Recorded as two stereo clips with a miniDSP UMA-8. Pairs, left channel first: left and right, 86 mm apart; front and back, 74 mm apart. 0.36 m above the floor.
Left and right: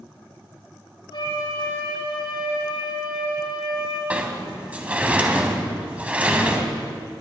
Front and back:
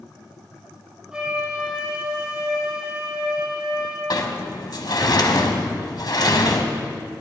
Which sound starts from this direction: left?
A flute, at 1.1 s.